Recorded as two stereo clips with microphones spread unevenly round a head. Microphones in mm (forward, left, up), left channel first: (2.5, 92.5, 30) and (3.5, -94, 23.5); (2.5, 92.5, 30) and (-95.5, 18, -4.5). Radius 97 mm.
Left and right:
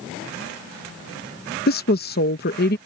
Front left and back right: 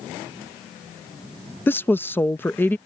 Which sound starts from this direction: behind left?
A woman speaking, at 1.7 s.